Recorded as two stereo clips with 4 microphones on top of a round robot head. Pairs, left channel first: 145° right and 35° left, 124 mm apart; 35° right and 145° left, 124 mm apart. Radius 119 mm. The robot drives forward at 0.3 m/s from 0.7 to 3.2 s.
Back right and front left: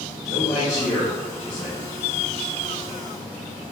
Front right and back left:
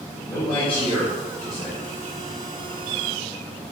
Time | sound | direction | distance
0.3 | a man speaking | 80° right | 1.1 m